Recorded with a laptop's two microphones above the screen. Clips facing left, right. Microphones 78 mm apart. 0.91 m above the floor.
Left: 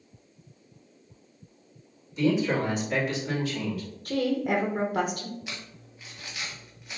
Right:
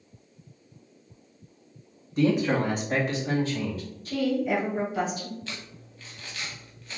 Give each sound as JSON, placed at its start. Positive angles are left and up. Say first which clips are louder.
{"t": 2.2, "sound": "a man speaking", "louder": "right 1 dB", "side_deg": -50, "distance_m": 1.8}
{"t": 4.0, "sound": "a woman speaking", "louder": "right 1 dB", "side_deg": 55, "distance_m": 1.0}
{"t": 5.5, "sound": "crumpling", "louder": "right 1 dB", "side_deg": 15, "distance_m": 1.1}